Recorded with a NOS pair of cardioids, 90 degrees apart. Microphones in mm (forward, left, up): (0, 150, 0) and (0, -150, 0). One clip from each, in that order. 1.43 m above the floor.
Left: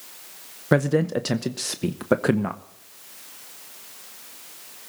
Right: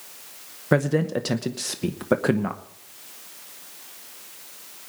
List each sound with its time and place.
0.7 s a man speaking: 10° left, 0.8 m